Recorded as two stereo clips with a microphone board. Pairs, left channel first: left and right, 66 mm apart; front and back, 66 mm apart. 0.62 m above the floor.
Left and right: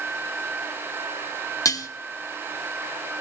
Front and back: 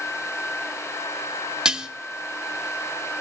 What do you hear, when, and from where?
1.6 s dishes clattering: 100° left, 0.7 m